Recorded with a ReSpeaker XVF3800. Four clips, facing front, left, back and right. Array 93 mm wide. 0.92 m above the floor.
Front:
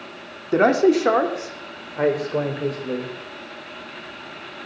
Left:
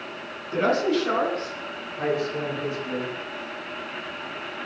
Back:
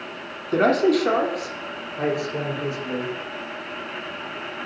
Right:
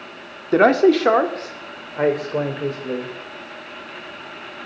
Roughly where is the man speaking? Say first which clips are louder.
Right 9 dB, front 2 dB; right.